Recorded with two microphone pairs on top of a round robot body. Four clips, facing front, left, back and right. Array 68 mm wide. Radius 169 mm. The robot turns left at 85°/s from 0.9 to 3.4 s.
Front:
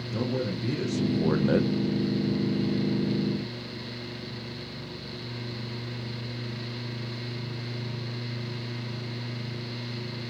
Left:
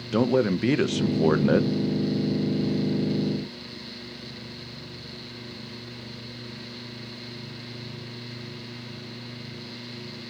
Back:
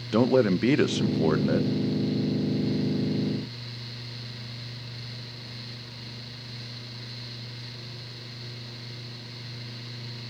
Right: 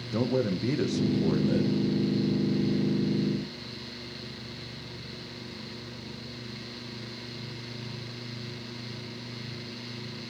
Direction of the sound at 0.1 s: 140° left.